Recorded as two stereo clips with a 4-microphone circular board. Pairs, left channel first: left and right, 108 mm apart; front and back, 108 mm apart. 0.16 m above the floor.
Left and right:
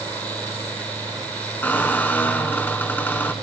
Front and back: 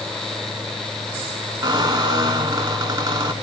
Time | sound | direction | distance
1.6 | a squeak | 155° left | 0.5 m